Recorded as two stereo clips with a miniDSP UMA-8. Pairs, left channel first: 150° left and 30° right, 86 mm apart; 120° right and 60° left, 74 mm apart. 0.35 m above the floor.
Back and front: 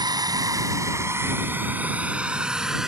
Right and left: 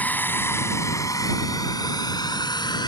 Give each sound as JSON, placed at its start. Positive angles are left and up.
{"t": 0.0, "sound": "a drone", "azimuth_deg": -55}